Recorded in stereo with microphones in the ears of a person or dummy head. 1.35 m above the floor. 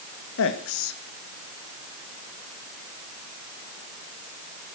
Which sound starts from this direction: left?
A man speaking, at 0.4 s.